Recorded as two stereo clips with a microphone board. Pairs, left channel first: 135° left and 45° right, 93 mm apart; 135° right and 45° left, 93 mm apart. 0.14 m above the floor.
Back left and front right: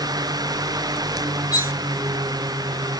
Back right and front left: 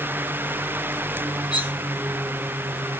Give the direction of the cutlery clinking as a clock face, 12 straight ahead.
6 o'clock.